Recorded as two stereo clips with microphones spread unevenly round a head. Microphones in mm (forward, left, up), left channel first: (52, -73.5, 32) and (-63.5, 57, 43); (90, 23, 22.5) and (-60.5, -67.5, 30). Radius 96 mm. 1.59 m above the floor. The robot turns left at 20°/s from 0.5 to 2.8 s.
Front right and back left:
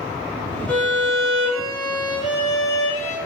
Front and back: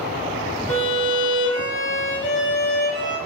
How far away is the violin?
About 2.5 m.